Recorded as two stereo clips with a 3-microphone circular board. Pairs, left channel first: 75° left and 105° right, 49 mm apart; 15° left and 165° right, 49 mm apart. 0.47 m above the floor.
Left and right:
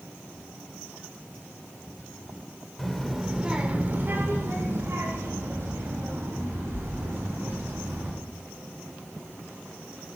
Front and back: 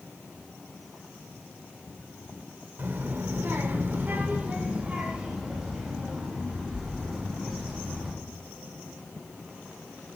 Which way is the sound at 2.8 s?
155° left.